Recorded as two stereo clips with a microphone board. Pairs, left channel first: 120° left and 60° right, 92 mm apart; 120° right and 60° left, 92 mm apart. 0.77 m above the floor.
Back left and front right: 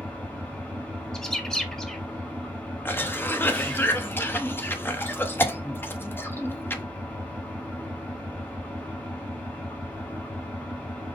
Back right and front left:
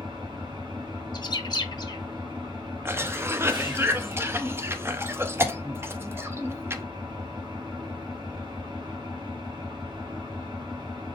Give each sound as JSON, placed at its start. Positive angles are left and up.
{"t": 0.0, "sound": "an engine running", "azimuth_deg": 55, "distance_m": 1.4}
{"t": 1.1, "sound": "a bird", "azimuth_deg": -155, "distance_m": 0.5}
{"t": 2.9, "sound": "a cough", "azimuth_deg": 85, "distance_m": 0.5}